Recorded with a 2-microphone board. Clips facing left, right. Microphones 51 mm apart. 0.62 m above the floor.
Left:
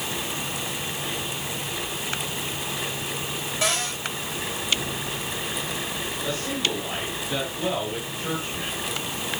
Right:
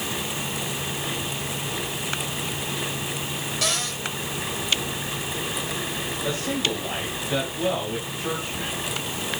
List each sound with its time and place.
3.6 s a cupboard door: 20° left (ahead or behind), 5 m
6.2 s a man speaking: 10° right (ahead or behind), 4.5 m